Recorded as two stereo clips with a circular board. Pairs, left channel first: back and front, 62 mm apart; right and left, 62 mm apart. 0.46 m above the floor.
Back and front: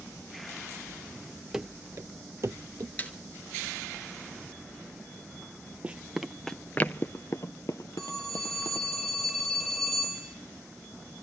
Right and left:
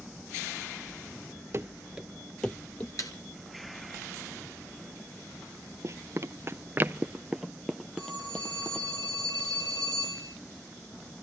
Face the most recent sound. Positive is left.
turn(degrees=-85)